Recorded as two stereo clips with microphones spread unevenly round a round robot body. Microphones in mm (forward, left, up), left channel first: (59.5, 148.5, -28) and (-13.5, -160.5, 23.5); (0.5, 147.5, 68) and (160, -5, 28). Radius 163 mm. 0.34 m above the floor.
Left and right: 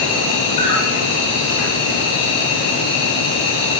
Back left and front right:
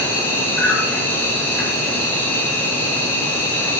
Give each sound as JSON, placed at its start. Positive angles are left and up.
{"t": 0.0, "sound": "an insect", "azimuth_deg": 50, "distance_m": 9.0}